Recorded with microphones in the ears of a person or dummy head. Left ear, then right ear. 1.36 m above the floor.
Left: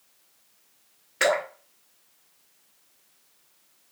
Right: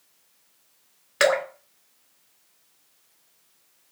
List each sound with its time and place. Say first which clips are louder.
1.2 s dripping: right 2 dB; 35° right (ahead or behind), 1.0 m